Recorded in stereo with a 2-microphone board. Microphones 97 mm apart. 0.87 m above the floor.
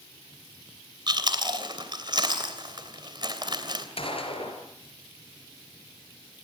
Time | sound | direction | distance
1.1 | chewing | 45° right (ahead or behind) | 2.5 m
4.0 | a gunshot | 65° left (ahead or behind) | 4 m